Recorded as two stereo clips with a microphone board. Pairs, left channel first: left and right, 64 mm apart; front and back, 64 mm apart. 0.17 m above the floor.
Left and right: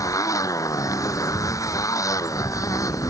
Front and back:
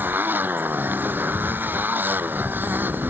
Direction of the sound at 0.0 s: 120° left.